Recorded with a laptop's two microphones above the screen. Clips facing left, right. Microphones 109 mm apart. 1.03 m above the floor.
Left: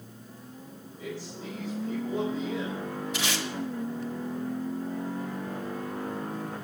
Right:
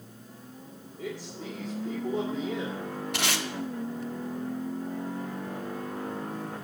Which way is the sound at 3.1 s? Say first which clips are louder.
Right 2 dB; 60° right (ahead or behind).